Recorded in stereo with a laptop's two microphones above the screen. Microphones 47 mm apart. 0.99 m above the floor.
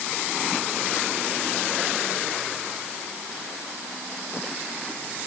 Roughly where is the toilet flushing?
I don't hear a toilet flushing.